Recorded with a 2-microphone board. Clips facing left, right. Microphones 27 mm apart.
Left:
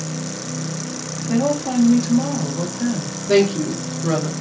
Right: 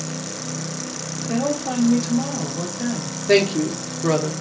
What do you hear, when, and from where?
1.2 s a woman speaking: 5° right (ahead or behind), 0.7 m
3.3 s a woman speaking: 55° right (ahead or behind), 1.0 m